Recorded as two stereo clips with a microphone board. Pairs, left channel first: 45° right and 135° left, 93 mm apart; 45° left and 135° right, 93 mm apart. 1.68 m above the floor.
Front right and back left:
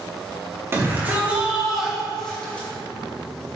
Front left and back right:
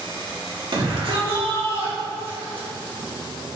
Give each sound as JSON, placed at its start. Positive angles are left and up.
{"t": 0.7, "sound": "a shout", "azimuth_deg": -165, "distance_m": 2.5}